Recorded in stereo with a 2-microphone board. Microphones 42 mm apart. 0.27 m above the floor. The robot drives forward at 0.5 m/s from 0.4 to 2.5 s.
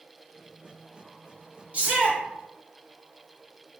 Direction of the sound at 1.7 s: 40° right (ahead or behind).